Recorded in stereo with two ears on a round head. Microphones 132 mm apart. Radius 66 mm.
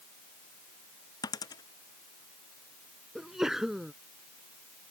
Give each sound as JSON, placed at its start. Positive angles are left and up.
{"t": 1.2, "sound": "a dropped coin", "side_deg": 25}
{"t": 3.1, "sound": "a sneeze", "side_deg": -5}